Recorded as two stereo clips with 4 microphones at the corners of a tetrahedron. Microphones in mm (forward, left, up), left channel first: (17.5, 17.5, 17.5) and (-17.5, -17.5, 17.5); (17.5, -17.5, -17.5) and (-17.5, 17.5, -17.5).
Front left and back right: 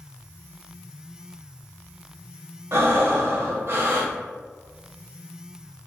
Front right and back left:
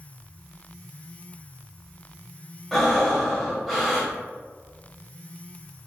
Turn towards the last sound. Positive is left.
turn(degrees=-135)